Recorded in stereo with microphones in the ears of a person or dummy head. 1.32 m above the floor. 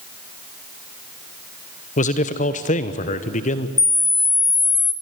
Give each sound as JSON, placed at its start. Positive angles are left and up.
{"t": 2.0, "sound": "a man speaking", "side_deg": 35, "distance_m": 1.0}
{"t": 3.8, "sound": "a camera shutter", "side_deg": 15, "distance_m": 0.8}